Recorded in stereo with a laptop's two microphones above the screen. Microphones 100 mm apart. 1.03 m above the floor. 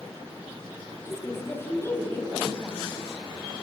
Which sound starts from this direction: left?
A woman speaking, at 1.1 s.